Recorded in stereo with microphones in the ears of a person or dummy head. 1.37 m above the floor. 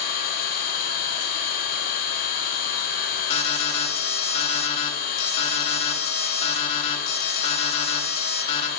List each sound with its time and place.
0.0 s an engine running: 65° left (ahead or behind), 7 m
3.3 s an alarm: 40° left (ahead or behind), 1.9 m